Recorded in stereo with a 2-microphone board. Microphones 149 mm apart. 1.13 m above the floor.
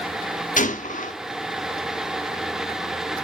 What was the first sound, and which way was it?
A gunshot, 60° left (ahead or behind).